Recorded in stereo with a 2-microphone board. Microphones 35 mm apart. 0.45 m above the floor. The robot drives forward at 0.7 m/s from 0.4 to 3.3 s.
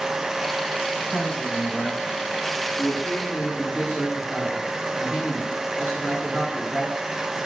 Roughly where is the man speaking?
Centre.